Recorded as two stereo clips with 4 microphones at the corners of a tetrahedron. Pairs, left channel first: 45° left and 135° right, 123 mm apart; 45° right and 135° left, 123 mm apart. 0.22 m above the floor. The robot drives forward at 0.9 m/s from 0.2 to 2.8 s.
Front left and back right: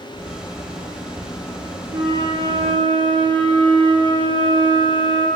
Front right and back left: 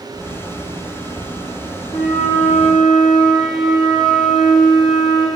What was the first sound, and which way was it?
A flute, 80° right.